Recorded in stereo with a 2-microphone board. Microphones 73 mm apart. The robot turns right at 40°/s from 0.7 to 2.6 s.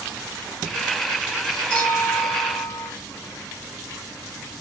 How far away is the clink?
About 6.5 m.